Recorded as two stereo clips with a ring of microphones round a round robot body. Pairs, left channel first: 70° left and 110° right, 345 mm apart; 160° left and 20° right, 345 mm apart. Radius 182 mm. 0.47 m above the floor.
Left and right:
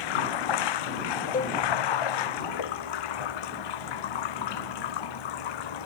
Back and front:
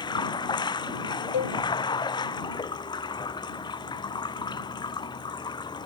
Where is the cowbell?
135° left.